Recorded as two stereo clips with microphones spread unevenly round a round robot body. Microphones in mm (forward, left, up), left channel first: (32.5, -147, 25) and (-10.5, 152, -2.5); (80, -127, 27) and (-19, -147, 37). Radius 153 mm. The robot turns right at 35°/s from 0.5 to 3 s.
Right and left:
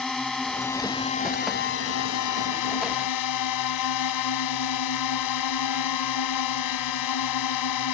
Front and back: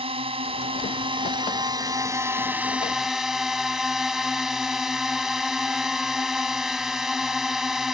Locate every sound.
0.0 s a drone: 170° right; by 7.9 s 85° right